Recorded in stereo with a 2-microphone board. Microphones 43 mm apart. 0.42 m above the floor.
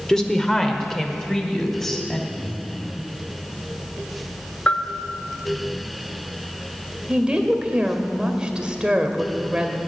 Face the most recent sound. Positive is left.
turn(degrees=-20)  # may be behind; listen again after turning